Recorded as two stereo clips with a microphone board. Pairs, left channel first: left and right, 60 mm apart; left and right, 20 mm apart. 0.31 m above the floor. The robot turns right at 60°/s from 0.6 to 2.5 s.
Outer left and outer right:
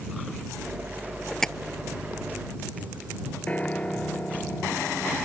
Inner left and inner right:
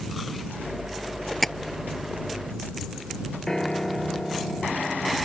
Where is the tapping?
10° left (ahead or behind); by 1.5 s 15° left (ahead or behind).